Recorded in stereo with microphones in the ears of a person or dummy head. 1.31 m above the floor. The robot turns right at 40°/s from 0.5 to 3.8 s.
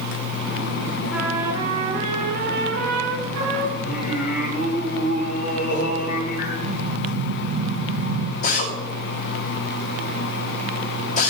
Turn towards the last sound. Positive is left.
turn(degrees=45)  # may be behind; listen again after turning